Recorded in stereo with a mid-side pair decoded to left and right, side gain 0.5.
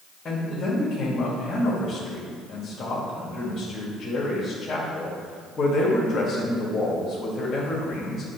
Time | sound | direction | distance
0.2 | a man speaking | 40° left | 1.8 m